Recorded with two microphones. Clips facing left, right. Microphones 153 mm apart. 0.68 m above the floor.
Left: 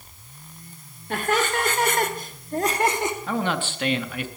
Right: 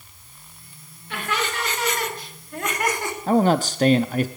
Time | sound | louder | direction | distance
1.1 | laughter | left 4 dB | 45° left (ahead or behind) | 2.5 m
3.3 | a man speaking | right 8 dB | 40° right (ahead or behind) | 0.6 m